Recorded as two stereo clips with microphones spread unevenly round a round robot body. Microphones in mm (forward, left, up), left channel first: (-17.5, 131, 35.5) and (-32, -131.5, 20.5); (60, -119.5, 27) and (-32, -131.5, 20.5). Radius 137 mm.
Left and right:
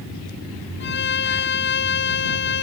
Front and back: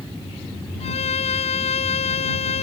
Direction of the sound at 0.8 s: 35° left.